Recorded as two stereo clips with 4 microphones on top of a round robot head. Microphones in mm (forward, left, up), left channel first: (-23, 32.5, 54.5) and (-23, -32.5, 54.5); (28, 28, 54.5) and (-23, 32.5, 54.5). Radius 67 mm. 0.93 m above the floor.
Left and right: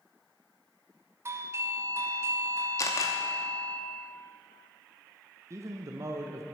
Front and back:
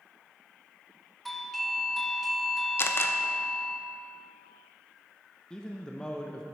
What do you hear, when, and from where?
1.2 s a doorbell: 90° right, 0.9 m
2.8 s a camera shutter: 40° left, 0.7 m
5.5 s a man speaking: 75° right, 0.7 m